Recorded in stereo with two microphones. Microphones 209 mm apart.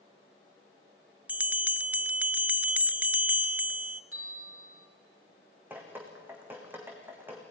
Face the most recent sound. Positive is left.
turn(degrees=-10)  # may be behind; listen again after turning